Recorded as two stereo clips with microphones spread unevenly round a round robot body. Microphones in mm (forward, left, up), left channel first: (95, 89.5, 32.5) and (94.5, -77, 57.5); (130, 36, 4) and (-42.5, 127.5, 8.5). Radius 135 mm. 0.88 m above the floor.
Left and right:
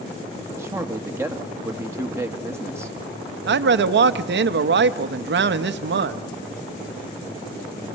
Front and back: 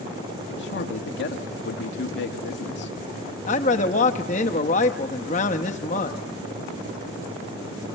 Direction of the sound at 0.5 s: 15° right.